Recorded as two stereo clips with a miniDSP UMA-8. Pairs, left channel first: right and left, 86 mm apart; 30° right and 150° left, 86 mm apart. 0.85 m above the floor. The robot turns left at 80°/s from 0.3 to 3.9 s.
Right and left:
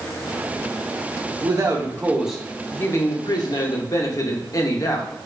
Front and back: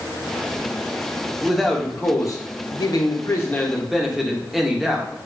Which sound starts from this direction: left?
A man speaking, at 1.4 s.